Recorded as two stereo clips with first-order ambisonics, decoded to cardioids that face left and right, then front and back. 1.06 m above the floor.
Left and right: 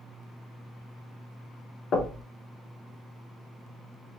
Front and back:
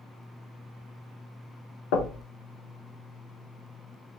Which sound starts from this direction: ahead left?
Knocking, at 1.9 s.